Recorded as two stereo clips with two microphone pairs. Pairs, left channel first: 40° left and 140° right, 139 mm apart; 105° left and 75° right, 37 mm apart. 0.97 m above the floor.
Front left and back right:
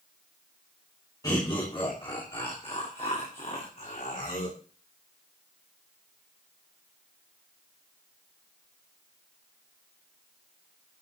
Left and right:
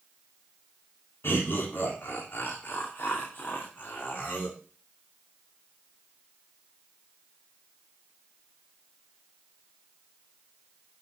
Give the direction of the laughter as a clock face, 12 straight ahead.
9 o'clock.